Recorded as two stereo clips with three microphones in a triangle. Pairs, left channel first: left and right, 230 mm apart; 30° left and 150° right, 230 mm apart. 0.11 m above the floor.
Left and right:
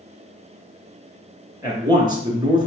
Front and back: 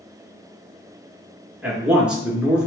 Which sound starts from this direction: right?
A man speaking, at 1.6 s.